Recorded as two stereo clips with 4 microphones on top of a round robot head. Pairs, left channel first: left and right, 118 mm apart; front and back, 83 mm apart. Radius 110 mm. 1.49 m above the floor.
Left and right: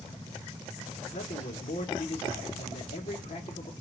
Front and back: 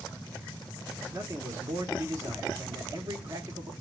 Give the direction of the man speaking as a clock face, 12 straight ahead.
8 o'clock.